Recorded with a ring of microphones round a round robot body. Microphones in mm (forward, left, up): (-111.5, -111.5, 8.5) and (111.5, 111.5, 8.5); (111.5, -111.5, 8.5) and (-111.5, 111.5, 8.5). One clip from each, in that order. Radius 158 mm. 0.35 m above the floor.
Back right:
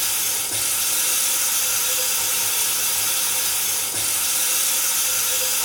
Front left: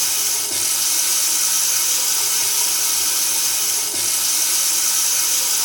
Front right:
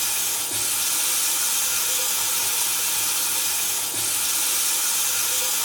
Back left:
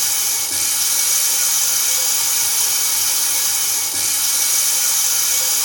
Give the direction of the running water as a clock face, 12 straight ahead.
9 o'clock.